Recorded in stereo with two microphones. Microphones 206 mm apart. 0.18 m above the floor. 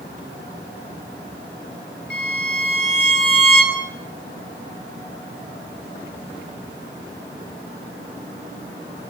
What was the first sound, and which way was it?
A violin, 60° left (ahead or behind).